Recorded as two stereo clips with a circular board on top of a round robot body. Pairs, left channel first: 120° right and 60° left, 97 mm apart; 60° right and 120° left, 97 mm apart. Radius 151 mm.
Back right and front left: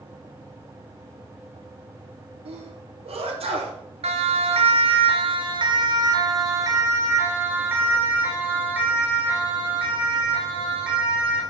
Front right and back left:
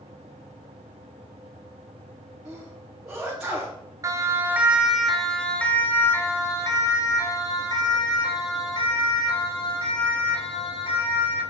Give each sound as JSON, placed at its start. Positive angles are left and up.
{"t": 2.5, "sound": "a sneeze", "azimuth_deg": 35, "distance_m": 4.0}
{"t": 4.0, "sound": "a siren", "azimuth_deg": 60, "distance_m": 2.0}